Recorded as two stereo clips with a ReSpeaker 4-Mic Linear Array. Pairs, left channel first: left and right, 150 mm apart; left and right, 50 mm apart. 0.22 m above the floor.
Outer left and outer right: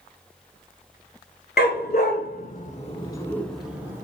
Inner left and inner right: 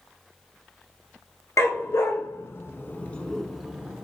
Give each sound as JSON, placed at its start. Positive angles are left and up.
{"t": 1.6, "sound": "a dog barking", "side_deg": 80, "distance_m": 0.9}